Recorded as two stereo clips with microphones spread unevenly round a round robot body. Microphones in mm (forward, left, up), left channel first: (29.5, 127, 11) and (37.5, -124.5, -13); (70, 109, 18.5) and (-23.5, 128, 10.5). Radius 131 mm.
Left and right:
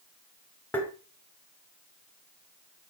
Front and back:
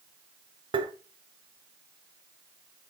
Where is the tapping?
Straight behind, 1.3 m.